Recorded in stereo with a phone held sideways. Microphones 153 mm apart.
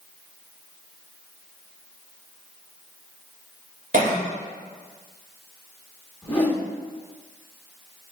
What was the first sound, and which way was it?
A cough, 55° right (ahead or behind).